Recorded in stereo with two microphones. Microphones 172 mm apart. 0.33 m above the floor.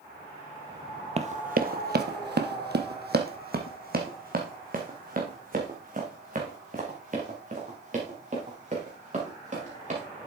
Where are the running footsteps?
40° right (ahead or behind), 0.6 m; by 10.0 s 45° right (ahead or behind), 4.5 m.